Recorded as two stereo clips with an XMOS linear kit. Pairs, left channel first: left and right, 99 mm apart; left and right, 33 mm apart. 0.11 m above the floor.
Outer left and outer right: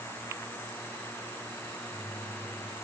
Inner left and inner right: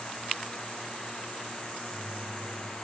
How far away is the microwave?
About 6.5 m.